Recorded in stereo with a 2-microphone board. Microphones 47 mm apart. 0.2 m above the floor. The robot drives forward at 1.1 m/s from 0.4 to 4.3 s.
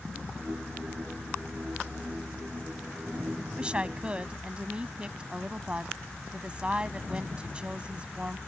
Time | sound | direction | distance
3.6 | a woman speaking | 20° right (ahead or behind) | ?